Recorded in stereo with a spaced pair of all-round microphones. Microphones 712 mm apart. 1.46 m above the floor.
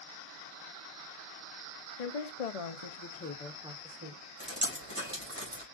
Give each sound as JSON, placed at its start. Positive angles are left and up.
{"t": 2.0, "sound": "a woman speaking", "side_deg": 70, "distance_m": 0.9}
{"t": 4.4, "sound": "dripping", "side_deg": -25, "distance_m": 3.0}